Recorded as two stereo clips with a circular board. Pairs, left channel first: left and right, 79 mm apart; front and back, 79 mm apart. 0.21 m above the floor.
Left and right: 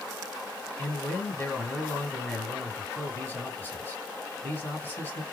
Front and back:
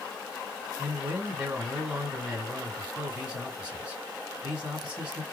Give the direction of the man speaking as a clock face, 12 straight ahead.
8 o'clock.